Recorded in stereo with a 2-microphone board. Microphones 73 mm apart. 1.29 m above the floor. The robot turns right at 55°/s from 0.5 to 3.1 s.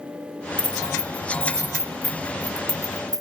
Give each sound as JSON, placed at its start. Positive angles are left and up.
{"t": 0.6, "sound": "keys jangling", "side_deg": 75, "distance_m": 0.8}